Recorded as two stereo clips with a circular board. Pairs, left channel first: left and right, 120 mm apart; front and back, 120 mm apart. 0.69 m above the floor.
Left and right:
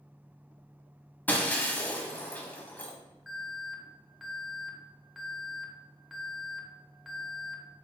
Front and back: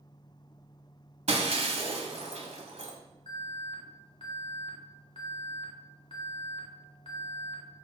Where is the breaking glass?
165° left, 1.3 m.